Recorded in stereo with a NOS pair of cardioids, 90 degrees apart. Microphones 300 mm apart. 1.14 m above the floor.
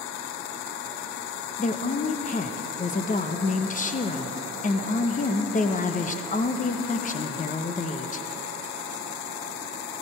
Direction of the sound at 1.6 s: 30° left.